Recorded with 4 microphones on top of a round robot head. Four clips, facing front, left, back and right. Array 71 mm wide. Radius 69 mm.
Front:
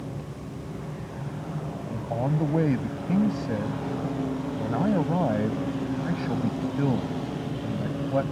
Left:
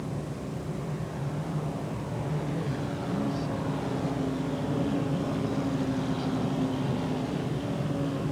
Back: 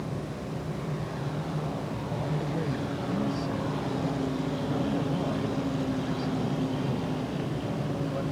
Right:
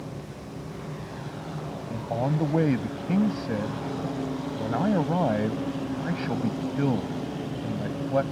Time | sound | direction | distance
1.9 | a man speaking | 60° right | ?